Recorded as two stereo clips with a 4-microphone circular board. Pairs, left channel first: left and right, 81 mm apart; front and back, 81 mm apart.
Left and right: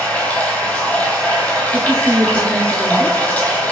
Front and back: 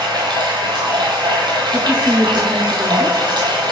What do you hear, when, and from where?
0.0 s running water: 160° left, 1.1 m
1.7 s a woman speaking: 150° left, 1.1 m